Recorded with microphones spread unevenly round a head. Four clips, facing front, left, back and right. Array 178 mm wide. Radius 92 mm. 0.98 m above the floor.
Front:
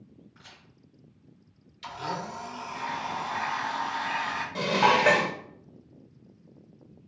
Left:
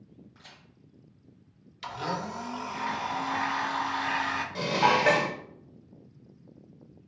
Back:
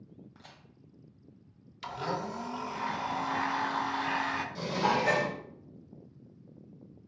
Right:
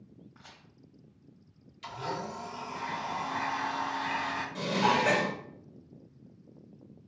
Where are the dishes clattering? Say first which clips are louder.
Left 3 dB, front 7 dB; 25° left, 0.6 m.